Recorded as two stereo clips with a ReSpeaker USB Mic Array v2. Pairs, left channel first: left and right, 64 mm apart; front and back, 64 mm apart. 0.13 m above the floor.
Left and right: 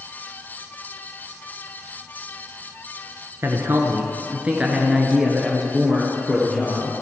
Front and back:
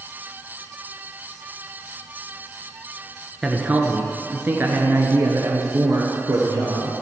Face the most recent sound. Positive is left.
turn(degrees=160)